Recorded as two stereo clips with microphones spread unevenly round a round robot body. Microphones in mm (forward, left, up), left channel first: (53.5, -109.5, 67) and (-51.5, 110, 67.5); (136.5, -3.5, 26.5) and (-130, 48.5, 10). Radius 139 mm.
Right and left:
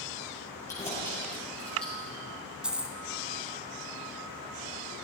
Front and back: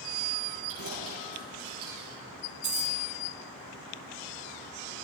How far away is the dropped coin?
About 1.2 m.